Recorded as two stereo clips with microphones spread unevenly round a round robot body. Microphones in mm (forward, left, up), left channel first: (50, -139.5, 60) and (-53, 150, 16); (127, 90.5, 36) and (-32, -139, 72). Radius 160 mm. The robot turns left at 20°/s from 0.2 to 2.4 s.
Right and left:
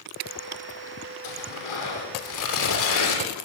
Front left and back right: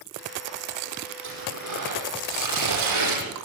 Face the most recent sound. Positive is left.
turn(degrees=-120)